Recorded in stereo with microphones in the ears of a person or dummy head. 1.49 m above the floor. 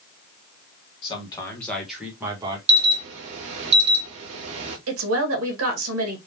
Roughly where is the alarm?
Right.